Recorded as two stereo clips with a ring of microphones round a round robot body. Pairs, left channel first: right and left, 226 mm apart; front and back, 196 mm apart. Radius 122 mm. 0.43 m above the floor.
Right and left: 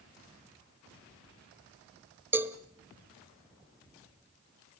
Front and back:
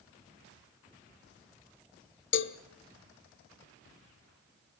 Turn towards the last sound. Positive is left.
turn(degrees=10)